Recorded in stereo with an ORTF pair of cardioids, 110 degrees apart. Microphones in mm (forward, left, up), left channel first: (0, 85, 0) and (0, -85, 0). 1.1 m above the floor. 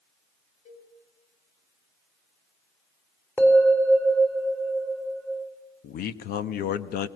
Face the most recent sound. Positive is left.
turn(degrees=65)